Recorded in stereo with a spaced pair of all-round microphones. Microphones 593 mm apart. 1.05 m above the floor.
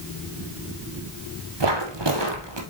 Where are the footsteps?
50° right (ahead or behind), 1.7 m.